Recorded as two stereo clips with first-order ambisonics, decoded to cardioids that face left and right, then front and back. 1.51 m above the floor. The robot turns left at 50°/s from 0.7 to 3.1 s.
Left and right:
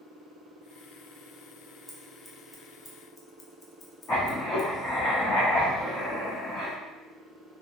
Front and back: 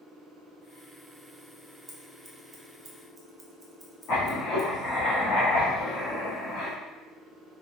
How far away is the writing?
About 2 m.